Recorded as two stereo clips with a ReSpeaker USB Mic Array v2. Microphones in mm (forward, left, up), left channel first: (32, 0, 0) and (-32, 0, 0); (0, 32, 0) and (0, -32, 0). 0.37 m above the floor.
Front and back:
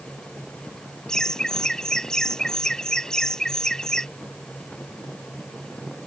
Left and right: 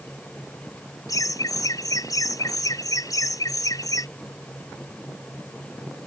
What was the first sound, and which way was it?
Laughter, 80° left.